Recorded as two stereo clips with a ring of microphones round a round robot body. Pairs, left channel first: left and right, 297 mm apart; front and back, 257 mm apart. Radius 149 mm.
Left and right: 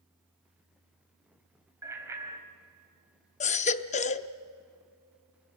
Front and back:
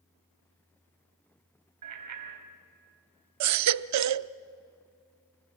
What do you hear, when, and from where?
1.8 s a bicycle bell: 170° right, 3 m
3.4 s a baby crying: 160° left, 0.6 m